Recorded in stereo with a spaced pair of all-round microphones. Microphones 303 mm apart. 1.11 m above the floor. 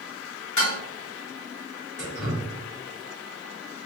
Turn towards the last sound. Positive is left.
turn(degrees=50)  # may be behind; listen again after turning